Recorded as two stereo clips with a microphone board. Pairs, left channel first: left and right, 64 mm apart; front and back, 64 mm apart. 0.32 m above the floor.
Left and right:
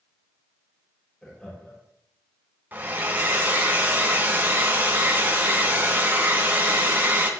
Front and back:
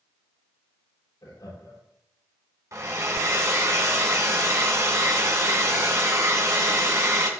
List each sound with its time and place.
1.2 s laughter: 15° left, 7 m
2.7 s a hair dryer: 145° right, 2.5 m